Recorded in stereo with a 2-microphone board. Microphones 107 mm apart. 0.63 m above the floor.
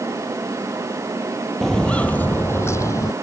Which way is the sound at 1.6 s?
5° left (ahead or behind).